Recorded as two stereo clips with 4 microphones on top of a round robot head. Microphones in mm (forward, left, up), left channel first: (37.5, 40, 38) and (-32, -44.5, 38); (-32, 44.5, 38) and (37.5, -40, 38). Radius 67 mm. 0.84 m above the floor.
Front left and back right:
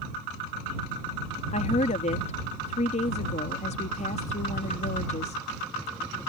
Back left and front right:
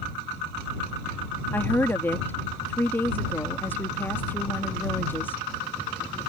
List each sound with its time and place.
1.5 s a woman speaking: 60° left